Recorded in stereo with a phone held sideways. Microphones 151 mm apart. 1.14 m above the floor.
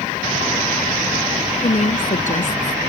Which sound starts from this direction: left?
A woman speaking, at 1.6 s.